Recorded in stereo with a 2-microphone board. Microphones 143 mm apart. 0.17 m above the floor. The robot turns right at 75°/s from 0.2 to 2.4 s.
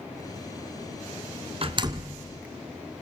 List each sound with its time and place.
1.6 s a door slam: 40° right (ahead or behind), 1.4 m; by 2.3 s 10° right (ahead or behind), 1.4 m